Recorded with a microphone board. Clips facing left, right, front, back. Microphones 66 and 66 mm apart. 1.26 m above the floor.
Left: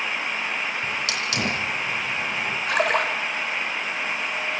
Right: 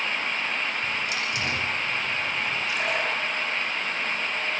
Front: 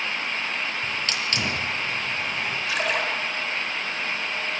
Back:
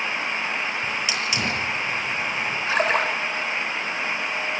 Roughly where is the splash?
Behind left.